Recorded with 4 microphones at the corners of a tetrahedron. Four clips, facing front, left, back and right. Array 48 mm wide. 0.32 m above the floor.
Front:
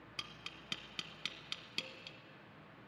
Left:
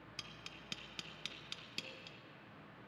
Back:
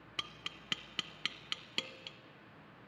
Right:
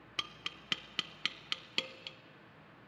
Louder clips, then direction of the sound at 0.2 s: Right 11 dB, back 5 dB; 115° right.